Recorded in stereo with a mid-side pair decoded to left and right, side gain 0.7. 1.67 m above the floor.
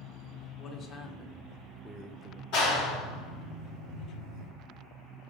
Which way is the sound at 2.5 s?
65° left.